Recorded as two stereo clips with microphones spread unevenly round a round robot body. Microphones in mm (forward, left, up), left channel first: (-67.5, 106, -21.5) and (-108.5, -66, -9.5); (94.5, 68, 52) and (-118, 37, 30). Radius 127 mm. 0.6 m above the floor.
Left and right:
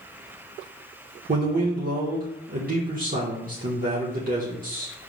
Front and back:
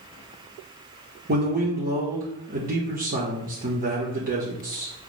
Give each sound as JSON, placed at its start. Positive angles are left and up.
{"t": 1.3, "sound": "a man speaking", "azimuth_deg": -135, "distance_m": 1.6}